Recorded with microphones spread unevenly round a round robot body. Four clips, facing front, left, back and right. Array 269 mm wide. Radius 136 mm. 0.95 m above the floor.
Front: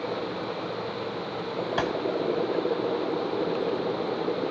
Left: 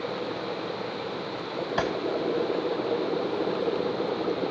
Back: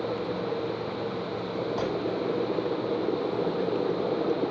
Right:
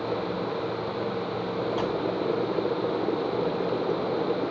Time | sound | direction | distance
1.8 | a gunshot | 40° left | 8.5 m